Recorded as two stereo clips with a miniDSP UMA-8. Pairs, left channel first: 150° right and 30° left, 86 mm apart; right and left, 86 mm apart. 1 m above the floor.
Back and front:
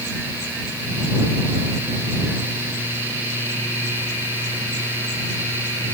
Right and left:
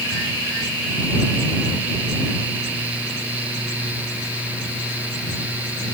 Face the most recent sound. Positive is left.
No sound to turn to.